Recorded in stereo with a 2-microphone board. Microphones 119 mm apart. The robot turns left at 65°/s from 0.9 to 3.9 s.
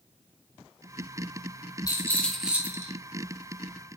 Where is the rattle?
35° left, 2 m; by 2.9 s 35° right, 2 m.